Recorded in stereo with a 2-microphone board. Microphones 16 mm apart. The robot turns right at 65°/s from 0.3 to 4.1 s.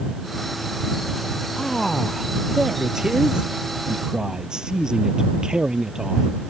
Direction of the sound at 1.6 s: 125° left.